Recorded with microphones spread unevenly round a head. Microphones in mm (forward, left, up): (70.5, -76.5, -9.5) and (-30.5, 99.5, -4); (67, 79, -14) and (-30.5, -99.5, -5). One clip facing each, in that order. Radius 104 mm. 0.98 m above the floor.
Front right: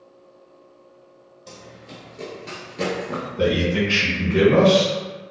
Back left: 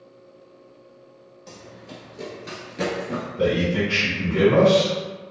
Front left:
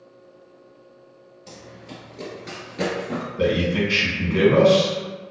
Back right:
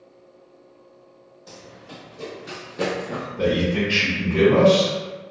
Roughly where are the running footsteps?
Ahead left.